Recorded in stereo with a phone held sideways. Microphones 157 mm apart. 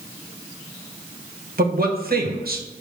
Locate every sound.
1.6 s a man speaking: 75° right (ahead or behind), 1.5 m